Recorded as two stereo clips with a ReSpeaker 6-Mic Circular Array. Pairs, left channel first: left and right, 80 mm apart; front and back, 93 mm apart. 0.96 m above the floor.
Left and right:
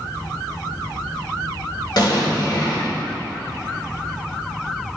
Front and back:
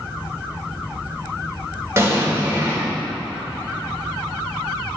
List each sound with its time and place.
2.0 s an explosion: 120° left, 2.5 m